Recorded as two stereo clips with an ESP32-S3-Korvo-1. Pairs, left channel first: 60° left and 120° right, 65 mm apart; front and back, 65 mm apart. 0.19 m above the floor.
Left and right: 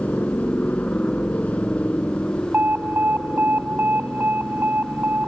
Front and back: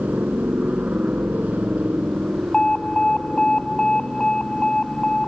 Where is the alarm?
75° right.